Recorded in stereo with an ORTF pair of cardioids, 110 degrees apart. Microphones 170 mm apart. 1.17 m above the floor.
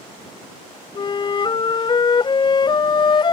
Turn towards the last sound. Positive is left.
turn(degrees=30)